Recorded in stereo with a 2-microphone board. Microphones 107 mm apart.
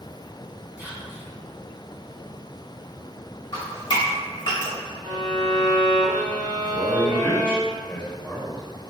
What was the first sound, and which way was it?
Whispering, 5° right (ahead or behind).